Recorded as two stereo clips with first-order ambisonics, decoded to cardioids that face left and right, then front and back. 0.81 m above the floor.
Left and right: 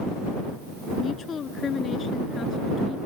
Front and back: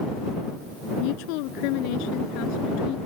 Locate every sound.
1.0 s a woman speaking: 20° left